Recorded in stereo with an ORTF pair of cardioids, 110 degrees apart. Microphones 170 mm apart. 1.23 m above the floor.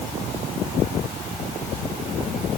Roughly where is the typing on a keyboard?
I don't hear typing on a keyboard.